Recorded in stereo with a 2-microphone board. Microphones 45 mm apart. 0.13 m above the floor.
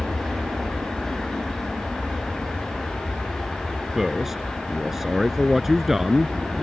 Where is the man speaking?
10° right (ahead or behind).